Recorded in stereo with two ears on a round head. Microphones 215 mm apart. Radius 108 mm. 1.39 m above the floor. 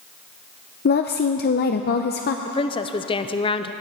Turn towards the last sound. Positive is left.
turn(degrees=20)  # may be behind; listen again after turning